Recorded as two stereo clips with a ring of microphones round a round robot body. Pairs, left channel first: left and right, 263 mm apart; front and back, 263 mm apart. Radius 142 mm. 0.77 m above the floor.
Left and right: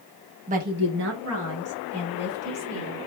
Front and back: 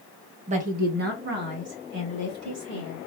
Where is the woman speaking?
135° right, 0.6 m; by 3.0 s 125° right, 2.5 m.